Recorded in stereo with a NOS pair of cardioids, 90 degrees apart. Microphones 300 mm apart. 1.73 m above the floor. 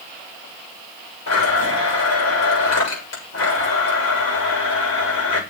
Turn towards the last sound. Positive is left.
turn(degrees=60)